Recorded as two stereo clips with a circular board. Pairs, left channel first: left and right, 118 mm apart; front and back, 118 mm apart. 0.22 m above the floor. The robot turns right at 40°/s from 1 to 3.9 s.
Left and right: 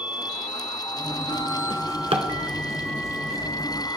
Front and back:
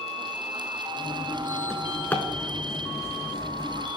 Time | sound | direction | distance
1.7 | a drawer | 90° right | 1.1 m